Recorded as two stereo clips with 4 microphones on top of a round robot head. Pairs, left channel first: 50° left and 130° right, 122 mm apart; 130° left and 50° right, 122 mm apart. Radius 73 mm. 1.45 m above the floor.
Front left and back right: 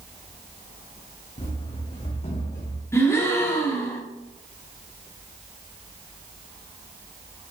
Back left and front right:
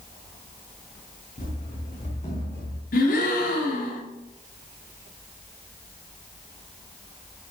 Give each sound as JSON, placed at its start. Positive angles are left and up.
{"t": 1.4, "sound": "running footsteps", "azimuth_deg": 90, "distance_m": 5.5}
{"t": 2.9, "sound": "a gasp", "azimuth_deg": 120, "distance_m": 3.5}